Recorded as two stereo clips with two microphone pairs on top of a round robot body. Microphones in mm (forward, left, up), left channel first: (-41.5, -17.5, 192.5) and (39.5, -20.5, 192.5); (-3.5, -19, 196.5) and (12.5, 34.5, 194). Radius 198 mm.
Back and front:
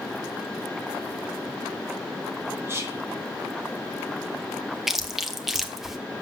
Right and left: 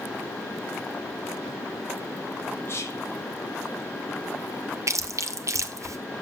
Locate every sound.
2.7 s whispering: 60° right, 3.5 m
4.9 s chewing: 85° left, 1.3 m